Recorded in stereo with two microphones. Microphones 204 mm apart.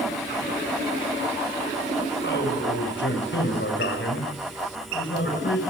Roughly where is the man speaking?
Left.